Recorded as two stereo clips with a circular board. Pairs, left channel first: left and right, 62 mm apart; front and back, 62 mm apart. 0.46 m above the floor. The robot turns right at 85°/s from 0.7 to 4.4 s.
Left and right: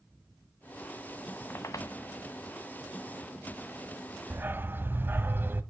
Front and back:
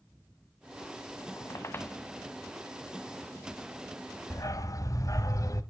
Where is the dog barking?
40° right, 1.2 m; by 5.6 s 30° right, 1.2 m.